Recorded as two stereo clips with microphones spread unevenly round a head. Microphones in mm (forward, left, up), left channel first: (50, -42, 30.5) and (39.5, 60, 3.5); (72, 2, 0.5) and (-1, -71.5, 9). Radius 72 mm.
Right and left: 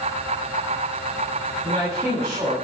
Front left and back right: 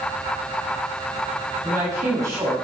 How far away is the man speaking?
About 9 m.